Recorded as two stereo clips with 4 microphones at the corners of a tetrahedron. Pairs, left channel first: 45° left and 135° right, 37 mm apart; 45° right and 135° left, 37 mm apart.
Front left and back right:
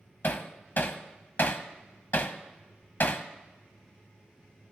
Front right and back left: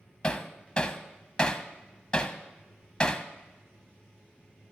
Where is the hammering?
20° left, 1.1 m.